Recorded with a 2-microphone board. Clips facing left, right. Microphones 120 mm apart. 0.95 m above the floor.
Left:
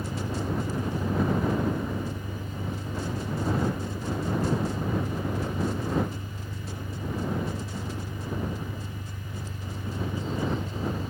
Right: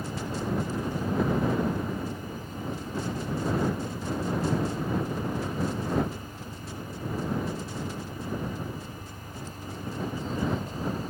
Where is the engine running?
55° left (ahead or behind).